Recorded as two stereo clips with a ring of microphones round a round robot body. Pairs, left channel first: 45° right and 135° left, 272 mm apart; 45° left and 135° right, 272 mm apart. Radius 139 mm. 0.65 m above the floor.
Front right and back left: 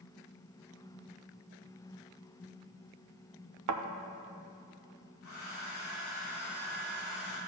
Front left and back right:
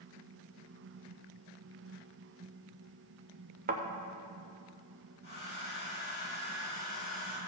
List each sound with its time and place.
3.7 s a thud: 165° left, 0.7 m
5.2 s a hair dryer: 10° right, 3 m